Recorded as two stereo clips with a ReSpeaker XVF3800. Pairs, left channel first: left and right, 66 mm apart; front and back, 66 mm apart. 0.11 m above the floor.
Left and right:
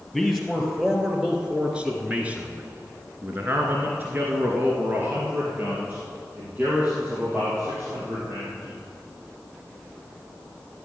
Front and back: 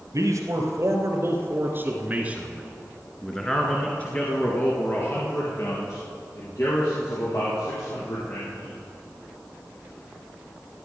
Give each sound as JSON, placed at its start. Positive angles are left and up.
{"t": 0.1, "sound": "a man speaking", "azimuth_deg": -175, "distance_m": 2.5}